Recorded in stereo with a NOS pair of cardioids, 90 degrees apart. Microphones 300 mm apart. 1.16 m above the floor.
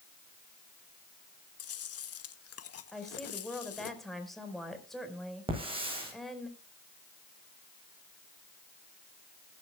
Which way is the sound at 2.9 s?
Straight ahead.